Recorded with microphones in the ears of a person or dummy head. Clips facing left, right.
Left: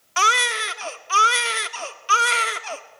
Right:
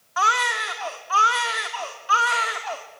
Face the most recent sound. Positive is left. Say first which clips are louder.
# left 1 dB
turn(degrees=40)  # may be behind; listen again after turning